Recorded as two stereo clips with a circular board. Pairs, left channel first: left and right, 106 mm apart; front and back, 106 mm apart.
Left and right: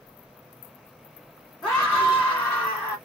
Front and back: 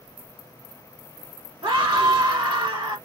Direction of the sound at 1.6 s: 175° left.